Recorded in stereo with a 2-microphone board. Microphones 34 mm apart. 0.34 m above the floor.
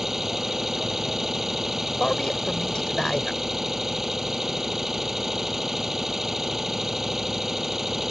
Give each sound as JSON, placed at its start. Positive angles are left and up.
{"t": 0.0, "sound": "an engine running", "side_deg": -10}
{"t": 2.0, "sound": "a man speaking", "side_deg": 25}